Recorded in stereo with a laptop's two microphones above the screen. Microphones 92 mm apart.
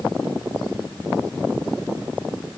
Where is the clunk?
I don't hear a clunk.